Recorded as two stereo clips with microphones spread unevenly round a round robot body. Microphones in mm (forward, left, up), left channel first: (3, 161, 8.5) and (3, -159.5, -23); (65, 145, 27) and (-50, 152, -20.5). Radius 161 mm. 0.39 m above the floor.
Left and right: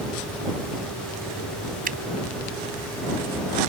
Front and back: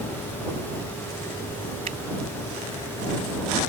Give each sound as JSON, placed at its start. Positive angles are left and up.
{"t": 1.9, "sound": "a finger snap", "azimuth_deg": -155}